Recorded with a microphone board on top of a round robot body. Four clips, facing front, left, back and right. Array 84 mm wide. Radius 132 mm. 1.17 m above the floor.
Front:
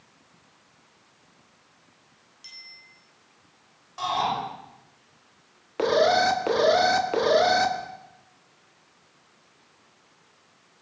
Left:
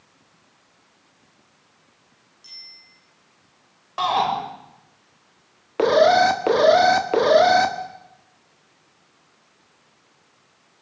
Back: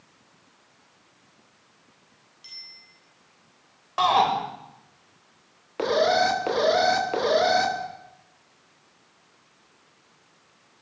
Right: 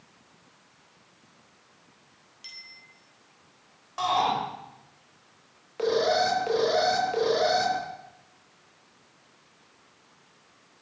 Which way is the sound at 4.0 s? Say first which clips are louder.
Left 4 dB, back 6 dB; 155° left.